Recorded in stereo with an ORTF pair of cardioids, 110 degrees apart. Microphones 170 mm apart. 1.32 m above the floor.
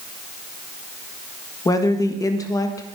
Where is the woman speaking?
20° left, 1.5 m.